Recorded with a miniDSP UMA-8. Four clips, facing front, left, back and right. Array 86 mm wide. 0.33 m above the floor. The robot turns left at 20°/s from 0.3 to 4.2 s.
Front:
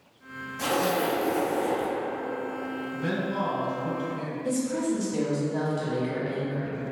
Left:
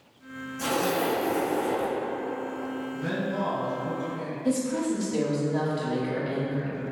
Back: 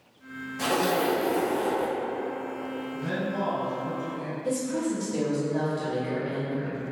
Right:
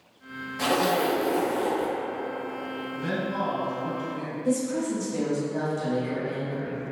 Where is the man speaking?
25° right, 1.8 m; by 4.3 s 50° right, 1.8 m.